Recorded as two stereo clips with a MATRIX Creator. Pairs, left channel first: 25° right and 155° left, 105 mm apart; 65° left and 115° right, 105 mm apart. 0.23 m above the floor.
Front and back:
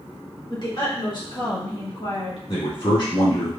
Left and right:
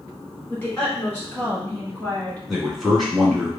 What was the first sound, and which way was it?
A woman speaking, straight ahead.